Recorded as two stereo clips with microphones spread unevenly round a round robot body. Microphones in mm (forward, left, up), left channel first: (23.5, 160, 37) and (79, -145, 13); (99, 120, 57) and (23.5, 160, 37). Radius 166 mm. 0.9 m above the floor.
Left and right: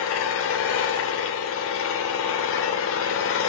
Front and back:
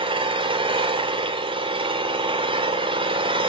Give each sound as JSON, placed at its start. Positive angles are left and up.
{"t": 0.0, "sound": "an engine running", "azimuth_deg": 155, "distance_m": 2.5}